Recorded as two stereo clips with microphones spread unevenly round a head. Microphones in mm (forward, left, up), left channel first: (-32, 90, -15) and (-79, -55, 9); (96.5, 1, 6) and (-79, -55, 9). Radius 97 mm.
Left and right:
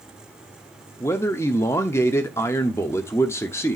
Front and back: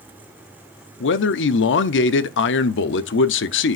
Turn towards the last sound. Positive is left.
turn(degrees=-5)